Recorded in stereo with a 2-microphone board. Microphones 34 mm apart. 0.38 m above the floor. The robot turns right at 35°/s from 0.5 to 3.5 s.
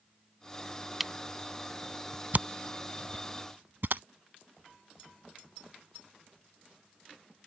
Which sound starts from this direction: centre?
A camera shutter, at 1.0 s.